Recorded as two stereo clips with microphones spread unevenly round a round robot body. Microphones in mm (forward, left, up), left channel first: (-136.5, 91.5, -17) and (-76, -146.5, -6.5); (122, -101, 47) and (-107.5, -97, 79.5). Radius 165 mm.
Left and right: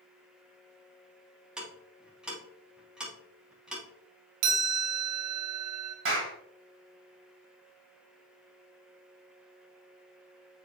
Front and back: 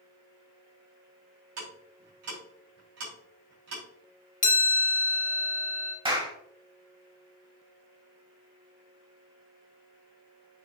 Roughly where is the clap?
Right.